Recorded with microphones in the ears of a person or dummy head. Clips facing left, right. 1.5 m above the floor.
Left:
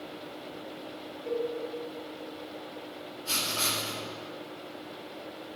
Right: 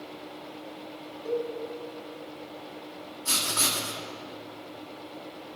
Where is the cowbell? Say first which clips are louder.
Right 2 dB; 70° right (ahead or behind), 4 m.